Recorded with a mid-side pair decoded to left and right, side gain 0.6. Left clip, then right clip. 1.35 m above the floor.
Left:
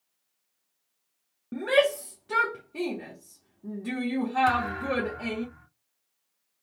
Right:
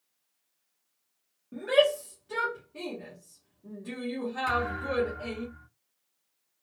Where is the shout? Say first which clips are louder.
Left 1 dB; 50° left, 1.2 m.